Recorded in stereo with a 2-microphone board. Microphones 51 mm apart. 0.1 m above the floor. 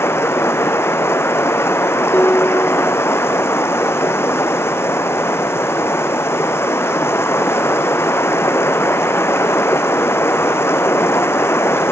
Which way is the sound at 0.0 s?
60° left (ahead or behind).